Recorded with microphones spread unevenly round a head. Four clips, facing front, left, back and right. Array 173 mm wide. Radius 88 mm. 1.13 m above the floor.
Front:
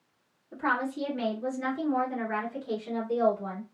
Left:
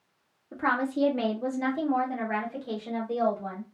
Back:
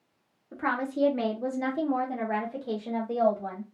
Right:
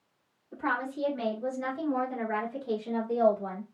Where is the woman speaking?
110° left, 1.2 m; by 3.6 s 175° right, 1.7 m.